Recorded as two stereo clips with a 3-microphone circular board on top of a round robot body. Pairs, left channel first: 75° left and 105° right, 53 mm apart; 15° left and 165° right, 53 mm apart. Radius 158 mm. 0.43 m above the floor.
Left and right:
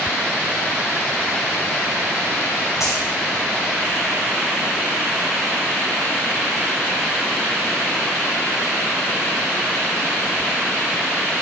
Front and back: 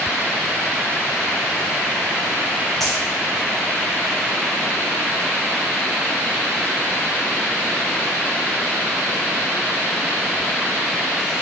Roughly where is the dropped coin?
Left.